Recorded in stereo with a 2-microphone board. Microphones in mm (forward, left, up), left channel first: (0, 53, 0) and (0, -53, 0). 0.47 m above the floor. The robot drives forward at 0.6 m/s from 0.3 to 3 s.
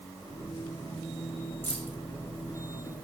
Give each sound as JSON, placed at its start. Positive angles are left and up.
{"t": 1.6, "sound": "keys jangling", "side_deg": 20, "distance_m": 1.9}